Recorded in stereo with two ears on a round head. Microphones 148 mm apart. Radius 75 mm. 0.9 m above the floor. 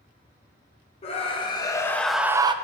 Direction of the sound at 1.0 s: 40° left (ahead or behind).